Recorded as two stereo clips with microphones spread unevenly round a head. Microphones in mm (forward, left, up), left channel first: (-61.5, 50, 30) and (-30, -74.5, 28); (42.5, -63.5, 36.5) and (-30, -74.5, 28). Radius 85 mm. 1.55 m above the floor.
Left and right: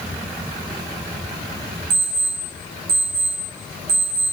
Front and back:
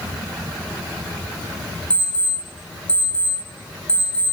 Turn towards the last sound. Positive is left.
turn(degrees=-60)